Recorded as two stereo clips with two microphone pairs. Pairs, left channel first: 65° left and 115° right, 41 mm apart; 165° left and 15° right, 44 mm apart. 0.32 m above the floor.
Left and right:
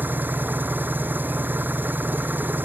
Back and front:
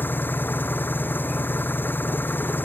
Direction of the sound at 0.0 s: 150° right.